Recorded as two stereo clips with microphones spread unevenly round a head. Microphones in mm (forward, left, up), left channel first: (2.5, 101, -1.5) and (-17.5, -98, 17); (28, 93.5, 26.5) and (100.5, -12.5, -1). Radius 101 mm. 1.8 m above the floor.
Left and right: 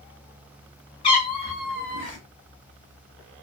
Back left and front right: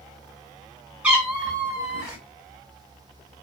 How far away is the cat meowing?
About 1.7 m.